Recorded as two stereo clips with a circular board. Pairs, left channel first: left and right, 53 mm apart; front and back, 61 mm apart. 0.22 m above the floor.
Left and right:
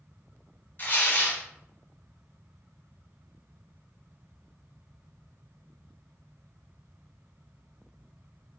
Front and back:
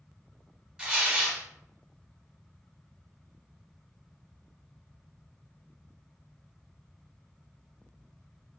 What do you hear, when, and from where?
0.8 s tearing paper: 115° left, 0.8 m